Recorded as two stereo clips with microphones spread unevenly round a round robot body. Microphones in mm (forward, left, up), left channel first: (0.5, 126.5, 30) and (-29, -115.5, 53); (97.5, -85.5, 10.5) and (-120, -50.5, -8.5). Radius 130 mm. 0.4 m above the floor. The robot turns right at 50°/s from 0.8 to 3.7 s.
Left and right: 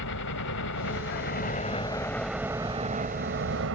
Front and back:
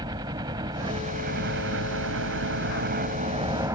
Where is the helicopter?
100° left; by 3.8 s 115° right.